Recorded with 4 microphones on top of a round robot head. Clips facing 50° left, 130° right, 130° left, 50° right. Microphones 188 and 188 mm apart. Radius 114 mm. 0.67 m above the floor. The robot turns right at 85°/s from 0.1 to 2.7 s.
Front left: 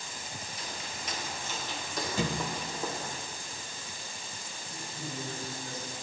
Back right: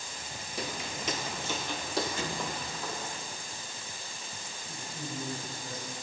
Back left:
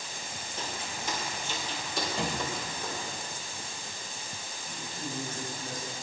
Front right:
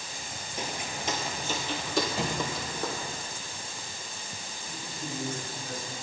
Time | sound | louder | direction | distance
0.6 | footsteps | back right 9 dB, front right 3 dB | 125° right | 0.8 m
2.2 | a thud | front left 3 dB, front right 1 dB | 35° left | 1.0 m
4.7 | a man speaking | back right 1 dB, front right 1 dB | 135° right | 4 m